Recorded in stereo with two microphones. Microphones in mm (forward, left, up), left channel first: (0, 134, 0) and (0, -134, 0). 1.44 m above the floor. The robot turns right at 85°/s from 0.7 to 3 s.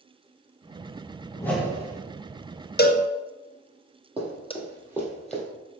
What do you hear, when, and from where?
1.4 s a whoosh: 165° left, 1.1 m; by 2.0 s 140° right, 1.1 m
2.8 s a cowbell: 40° left (ahead or behind), 0.7 m; by 4.5 s 20° left (ahead or behind), 0.7 m
4.2 s running footsteps: 20° right (ahead or behind), 3.5 m; by 5.4 s 5° left (ahead or behind), 2.5 m